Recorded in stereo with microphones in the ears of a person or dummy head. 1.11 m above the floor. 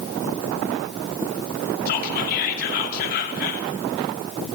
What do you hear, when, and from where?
1.9 s whispering: 50° left (ahead or behind), 3 m